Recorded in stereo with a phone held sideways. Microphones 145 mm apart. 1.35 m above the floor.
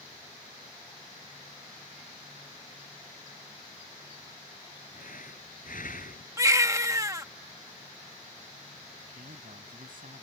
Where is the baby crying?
25° right (ahead or behind).